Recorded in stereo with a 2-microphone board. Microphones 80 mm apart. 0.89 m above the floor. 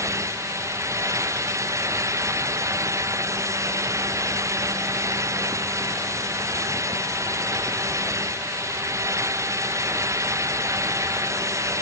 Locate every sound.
Only background noise.